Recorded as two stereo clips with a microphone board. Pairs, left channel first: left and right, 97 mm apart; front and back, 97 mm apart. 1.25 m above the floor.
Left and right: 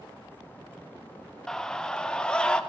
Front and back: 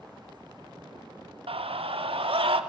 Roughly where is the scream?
Behind.